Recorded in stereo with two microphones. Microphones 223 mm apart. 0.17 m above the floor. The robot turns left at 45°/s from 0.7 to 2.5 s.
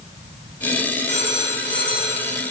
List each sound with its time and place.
1.1 s a phone ringing: 55° right, 3 m; by 2.3 s 110° right, 3 m